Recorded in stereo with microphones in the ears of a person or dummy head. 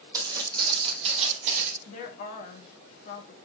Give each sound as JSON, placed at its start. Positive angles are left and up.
{"t": 0.1, "sound": "footsteps", "side_deg": -20, "distance_m": 4.5}
{"t": 1.9, "sound": "a woman speaking", "side_deg": 45, "distance_m": 3.0}